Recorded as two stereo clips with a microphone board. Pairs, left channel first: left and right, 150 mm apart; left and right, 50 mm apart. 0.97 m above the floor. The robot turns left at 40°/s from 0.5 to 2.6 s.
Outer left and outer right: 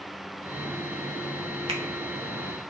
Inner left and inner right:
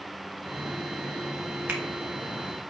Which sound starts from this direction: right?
A finger snap, at 1.7 s.